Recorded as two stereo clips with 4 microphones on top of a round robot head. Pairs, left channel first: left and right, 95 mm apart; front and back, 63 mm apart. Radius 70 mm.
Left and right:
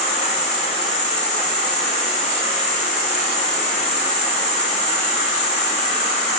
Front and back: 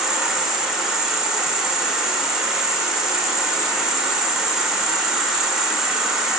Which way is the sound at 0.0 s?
95° left.